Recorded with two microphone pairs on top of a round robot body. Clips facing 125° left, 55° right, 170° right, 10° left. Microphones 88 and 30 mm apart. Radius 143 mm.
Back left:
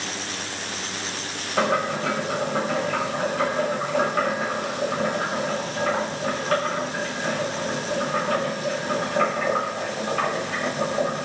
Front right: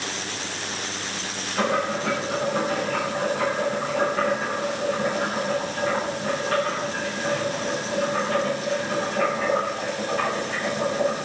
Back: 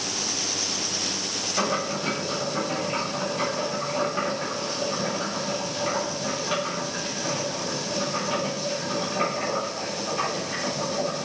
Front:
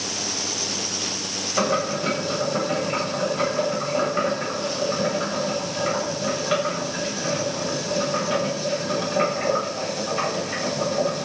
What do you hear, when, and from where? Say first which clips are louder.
1.6 s boiling: back left 1 dB, front 4 dB; 80° left, 8.5 m